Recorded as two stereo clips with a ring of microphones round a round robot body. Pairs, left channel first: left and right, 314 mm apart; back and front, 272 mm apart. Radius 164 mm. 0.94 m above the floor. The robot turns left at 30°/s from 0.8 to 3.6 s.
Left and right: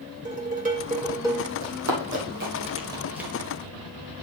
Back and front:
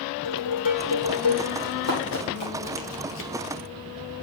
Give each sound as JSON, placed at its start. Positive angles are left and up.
{"t": 0.2, "sound": "dishes clattering", "azimuth_deg": -155, "distance_m": 2.0}
{"t": 1.6, "sound": "running footsteps", "azimuth_deg": -125, "distance_m": 3.0}